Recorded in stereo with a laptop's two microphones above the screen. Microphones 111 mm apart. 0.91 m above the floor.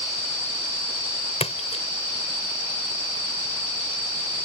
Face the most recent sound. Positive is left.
turn(degrees=70)  # may be behind; listen again after turning